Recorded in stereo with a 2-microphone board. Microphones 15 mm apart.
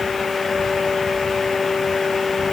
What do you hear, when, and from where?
Only background noise.